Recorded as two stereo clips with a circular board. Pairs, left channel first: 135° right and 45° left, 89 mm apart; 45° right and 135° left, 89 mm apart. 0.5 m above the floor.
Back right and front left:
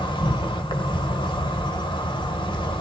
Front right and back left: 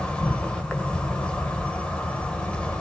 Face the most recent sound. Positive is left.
turn(degrees=-120)